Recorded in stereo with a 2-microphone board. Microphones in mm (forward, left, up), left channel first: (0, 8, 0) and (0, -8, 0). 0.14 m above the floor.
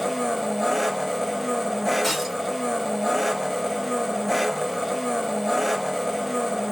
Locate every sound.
0.0 s an engine running: 5° right (ahead or behind), 0.7 m
2.0 s breaking glass: centre (ahead or behind), 0.8 m